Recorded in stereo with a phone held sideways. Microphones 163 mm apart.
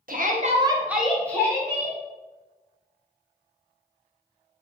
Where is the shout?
60° right (ahead or behind), 0.8 m; by 2.0 s 20° left (ahead or behind), 1.8 m.